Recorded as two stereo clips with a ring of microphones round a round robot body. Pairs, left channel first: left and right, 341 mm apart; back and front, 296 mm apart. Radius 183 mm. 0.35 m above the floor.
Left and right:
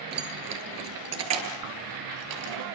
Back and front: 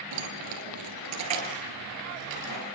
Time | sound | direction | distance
0.1 | keys jangling | 30° right | 5.5 m